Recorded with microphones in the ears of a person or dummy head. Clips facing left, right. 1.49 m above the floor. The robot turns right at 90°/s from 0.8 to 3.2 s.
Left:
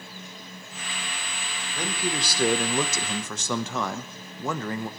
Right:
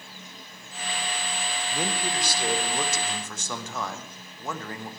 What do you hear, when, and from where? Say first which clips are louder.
1.7 s a man speaking: left 1 dB; 20° right, 1.2 m; by 4.9 s 115° left, 1.2 m